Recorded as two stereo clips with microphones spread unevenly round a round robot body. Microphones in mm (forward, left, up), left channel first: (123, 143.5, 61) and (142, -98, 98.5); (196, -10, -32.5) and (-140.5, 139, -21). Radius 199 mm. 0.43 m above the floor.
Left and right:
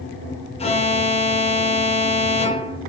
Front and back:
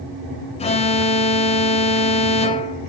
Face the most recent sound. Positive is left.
turn(degrees=45)